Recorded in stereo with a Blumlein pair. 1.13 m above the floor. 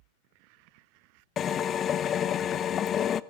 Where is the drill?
25° left, 1.0 m.